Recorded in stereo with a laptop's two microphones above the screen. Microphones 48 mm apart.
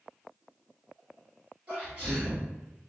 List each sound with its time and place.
1.7 s a sneeze: 35° right (ahead or behind), 2.0 m